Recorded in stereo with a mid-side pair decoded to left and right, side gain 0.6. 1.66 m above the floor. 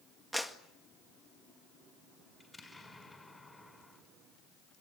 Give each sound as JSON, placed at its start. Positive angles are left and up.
{"t": 0.3, "sound": "a clap", "azimuth_deg": 0, "distance_m": 2.0}
{"t": 2.4, "sound": "an explosion", "azimuth_deg": 15, "distance_m": 5.5}